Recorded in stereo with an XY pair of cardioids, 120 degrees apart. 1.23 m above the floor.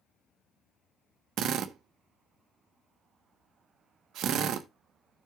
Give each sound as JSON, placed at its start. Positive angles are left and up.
{"t": 1.4, "sound": "a drill", "azimuth_deg": -70, "distance_m": 1.0}